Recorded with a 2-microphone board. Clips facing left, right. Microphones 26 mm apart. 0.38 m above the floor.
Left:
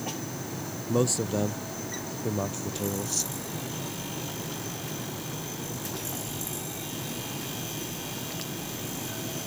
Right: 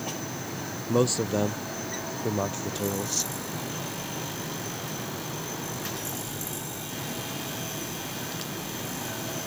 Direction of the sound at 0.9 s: 10° right (ahead or behind).